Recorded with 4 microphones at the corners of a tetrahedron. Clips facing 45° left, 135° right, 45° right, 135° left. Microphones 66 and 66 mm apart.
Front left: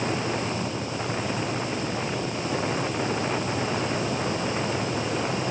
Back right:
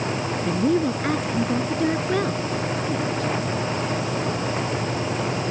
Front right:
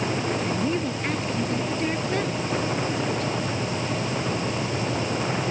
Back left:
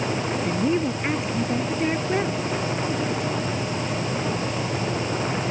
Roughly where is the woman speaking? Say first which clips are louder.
Back right 9 dB, back left 3 dB; behind right.